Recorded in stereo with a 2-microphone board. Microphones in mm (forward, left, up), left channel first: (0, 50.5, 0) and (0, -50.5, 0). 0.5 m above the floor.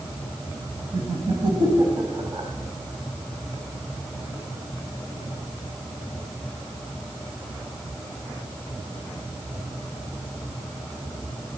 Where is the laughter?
60° right (ahead or behind), 3.5 m; by 2.5 s 35° right (ahead or behind), 3 m.